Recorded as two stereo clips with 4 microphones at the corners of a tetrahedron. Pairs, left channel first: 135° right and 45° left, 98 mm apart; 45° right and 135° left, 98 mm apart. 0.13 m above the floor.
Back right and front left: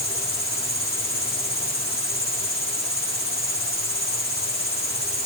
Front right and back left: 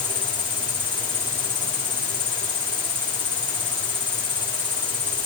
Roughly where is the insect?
Behind right.